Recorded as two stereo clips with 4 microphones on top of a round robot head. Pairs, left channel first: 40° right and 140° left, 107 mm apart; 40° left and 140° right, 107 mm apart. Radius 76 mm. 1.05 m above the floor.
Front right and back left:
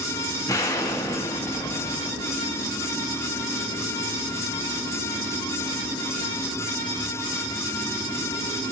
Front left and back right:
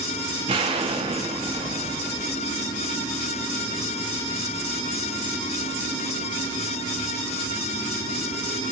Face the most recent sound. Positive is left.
turn(degrees=-100)